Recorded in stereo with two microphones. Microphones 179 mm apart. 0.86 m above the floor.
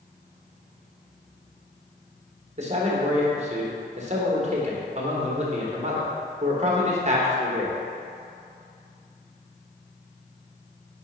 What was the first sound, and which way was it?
A man speaking, 40° right (ahead or behind).